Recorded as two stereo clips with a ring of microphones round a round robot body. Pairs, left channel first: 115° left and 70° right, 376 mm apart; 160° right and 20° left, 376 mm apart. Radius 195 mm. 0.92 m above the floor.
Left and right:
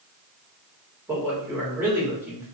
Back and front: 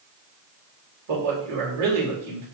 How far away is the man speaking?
About 3.5 m.